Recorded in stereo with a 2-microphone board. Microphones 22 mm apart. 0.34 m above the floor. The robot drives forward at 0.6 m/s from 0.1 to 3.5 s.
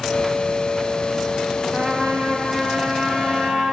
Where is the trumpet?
60° right (ahead or behind), 4 m; by 3.7 s 50° right (ahead or behind), 4.5 m.